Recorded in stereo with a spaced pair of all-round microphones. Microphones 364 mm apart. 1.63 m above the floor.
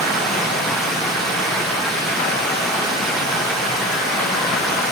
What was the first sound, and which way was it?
Running water, centre (ahead or behind).